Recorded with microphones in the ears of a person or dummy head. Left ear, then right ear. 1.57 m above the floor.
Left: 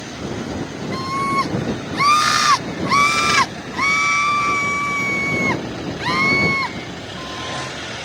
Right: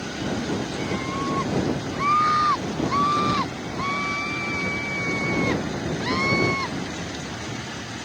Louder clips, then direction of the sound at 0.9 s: Left 8 dB; 80° left.